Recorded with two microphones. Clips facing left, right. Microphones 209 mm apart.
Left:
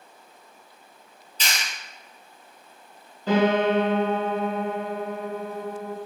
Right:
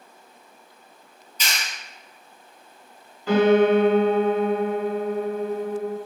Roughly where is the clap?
Left.